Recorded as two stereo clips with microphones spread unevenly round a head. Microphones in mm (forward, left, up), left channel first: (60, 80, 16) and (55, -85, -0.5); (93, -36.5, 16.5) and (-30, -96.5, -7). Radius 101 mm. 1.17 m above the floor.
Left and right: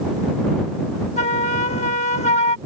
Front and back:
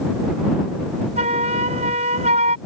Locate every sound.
1.2 s a flute: 150° left